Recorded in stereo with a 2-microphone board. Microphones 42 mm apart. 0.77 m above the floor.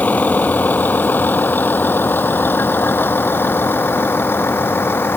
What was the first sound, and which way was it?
A vehicle, 40° left (ahead or behind).